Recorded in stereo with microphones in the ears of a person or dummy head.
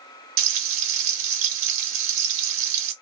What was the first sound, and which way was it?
Frying, 40° right (ahead or behind).